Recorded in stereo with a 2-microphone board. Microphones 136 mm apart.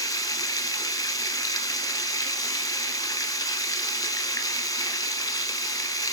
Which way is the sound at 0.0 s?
25° left (ahead or behind).